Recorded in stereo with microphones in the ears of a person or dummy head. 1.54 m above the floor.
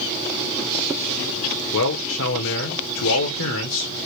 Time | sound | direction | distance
1.7 | a man speaking | 65° left (ahead or behind) | 0.9 m